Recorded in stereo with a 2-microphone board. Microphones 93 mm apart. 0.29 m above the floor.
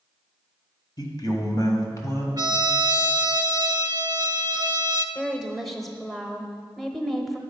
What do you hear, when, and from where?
1.0 s a man speaking: 45° left (ahead or behind), 1.5 m; by 2.3 s 30° left (ahead or behind), 1.7 m
2.4 s a trumpet: 45° right (ahead or behind), 0.6 m
5.2 s a woman speaking: centre (ahead or behind), 0.9 m